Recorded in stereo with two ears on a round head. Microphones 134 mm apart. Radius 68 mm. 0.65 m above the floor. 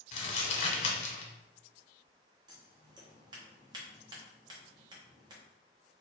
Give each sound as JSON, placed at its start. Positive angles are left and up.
{"t": 0.1, "sound": "crumpling", "side_deg": 40, "distance_m": 1.0}
{"t": 2.5, "sound": "scissors", "side_deg": -25, "distance_m": 1.0}